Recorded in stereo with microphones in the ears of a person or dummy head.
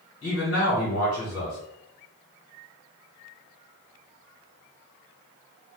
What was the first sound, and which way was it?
A man speaking, 65° left (ahead or behind).